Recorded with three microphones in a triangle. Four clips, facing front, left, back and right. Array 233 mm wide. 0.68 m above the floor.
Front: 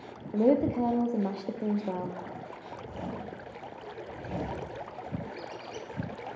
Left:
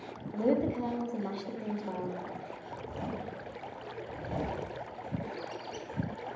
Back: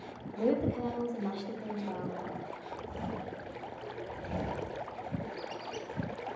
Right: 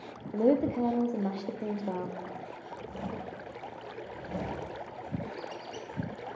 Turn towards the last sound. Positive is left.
turn(degrees=145)